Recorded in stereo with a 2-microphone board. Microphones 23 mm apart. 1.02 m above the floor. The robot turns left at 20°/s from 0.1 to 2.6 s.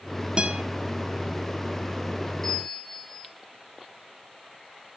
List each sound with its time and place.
0.4 s a guitar: 40° right (ahead or behind), 1.2 m; by 0.6 s 45° right (ahead or behind), 1.2 m
2.4 s a bell: 10° left (ahead or behind), 4 m